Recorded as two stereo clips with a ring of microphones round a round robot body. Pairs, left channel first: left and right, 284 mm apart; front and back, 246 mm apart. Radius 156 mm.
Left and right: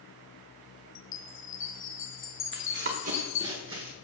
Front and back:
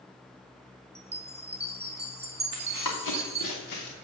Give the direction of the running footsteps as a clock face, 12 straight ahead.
1 o'clock.